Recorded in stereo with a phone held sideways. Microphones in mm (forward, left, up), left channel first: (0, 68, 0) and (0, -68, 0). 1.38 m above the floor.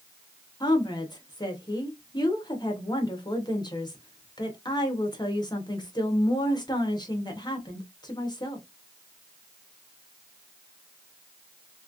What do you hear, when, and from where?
0.6 s a woman speaking: 35° left (ahead or behind), 1.2 m